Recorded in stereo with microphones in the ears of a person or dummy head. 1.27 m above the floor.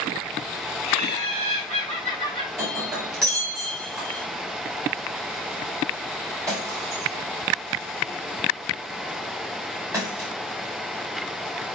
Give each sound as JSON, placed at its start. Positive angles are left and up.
{"t": 0.9, "sound": "laughter", "side_deg": -40, "distance_m": 7.5}
{"t": 2.6, "sound": "breaking glass", "side_deg": -10, "distance_m": 4.5}